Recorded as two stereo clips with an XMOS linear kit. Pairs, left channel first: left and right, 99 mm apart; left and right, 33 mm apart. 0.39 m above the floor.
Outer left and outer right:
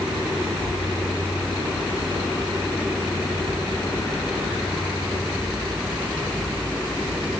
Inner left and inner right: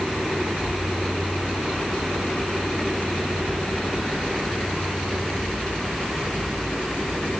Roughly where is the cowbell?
I don't hear a cowbell.